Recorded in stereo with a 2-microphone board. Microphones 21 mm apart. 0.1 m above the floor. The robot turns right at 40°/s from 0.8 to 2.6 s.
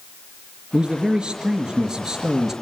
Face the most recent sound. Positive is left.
turn(degrees=-25)